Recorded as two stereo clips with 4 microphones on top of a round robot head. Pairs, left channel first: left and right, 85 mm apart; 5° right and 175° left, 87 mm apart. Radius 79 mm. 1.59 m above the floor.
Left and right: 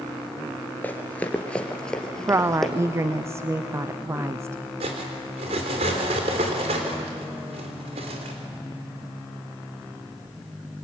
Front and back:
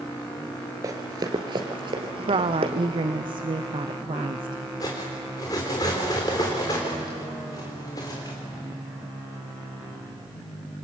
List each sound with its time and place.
0.8 s running footsteps: 150° left, 1.8 m; by 2.7 s 175° left, 2.5 m
2.3 s a woman speaking: 150° right, 0.7 m
4.8 s cutlery clinking: 65° right, 3.5 m